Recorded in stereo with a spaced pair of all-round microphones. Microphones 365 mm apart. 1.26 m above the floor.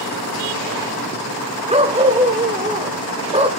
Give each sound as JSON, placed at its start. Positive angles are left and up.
{"t": 1.7, "sound": "a dog barking", "side_deg": -15, "distance_m": 2.0}